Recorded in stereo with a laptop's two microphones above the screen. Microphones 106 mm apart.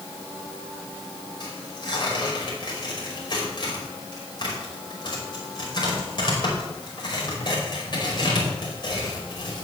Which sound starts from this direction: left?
Tearing paper, at 1.4 s.